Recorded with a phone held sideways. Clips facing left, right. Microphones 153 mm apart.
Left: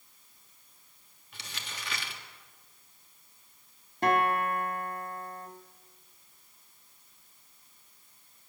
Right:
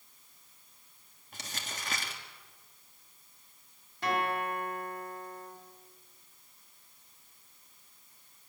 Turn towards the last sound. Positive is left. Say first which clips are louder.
# left 5 dB
turn(degrees=45)  # may be behind; listen again after turning